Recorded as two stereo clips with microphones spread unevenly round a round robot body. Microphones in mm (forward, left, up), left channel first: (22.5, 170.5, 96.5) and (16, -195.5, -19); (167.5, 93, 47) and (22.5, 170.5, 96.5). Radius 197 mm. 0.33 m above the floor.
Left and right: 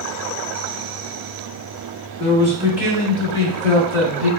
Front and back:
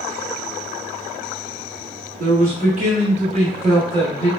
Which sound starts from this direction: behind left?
A man speaking, at 2.2 s.